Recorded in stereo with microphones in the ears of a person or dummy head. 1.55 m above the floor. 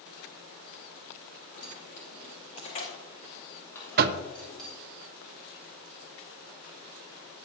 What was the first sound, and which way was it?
Keys jangling, 55° left (ahead or behind).